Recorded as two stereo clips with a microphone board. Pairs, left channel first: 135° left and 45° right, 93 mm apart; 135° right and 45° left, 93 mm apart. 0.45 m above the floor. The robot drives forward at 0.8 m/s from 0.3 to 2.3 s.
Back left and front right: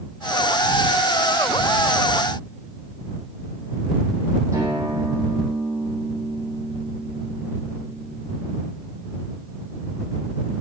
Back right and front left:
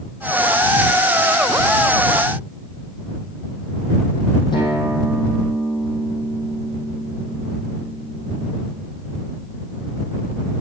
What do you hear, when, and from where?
4.5 s a guitar: 100° right, 6 m